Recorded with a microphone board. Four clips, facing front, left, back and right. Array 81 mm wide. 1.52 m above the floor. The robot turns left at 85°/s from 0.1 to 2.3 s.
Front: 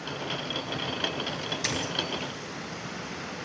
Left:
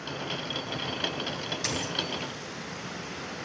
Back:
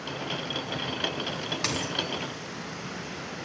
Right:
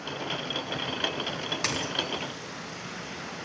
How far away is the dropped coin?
About 4 m.